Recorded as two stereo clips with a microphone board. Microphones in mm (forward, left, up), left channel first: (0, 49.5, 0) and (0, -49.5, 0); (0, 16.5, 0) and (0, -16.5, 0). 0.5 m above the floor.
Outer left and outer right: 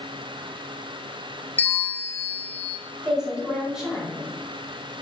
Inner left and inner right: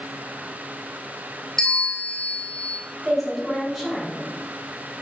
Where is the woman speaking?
5° right (ahead or behind), 1.9 m.